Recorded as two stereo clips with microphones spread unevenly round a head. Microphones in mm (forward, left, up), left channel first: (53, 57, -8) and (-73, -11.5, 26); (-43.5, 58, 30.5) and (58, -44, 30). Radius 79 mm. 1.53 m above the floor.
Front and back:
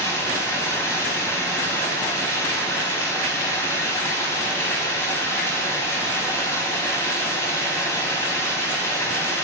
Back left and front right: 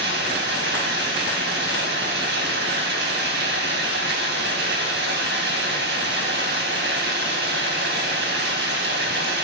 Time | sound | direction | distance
0.0 | running water | 50° right | 4 m